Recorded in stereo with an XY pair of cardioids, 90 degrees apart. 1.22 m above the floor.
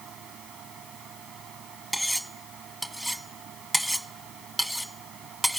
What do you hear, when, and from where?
0.0 s a fan: 70° right
1.9 s cutlery clinking: 5° right